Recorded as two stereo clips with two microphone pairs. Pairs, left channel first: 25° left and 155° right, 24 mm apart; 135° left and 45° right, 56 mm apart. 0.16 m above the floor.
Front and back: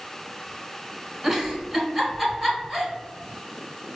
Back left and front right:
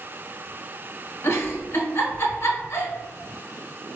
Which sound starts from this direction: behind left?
A giggle, at 1.2 s.